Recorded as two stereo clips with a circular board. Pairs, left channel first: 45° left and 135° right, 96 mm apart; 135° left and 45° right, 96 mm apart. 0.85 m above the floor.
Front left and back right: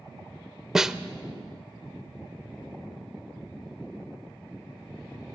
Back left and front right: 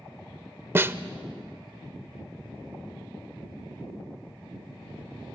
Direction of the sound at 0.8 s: 60° right.